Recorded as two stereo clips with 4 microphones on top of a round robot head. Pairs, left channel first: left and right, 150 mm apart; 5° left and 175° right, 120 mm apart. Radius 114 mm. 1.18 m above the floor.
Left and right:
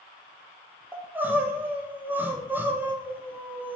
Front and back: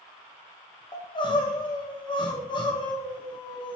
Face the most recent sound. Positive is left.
turn(degrees=-15)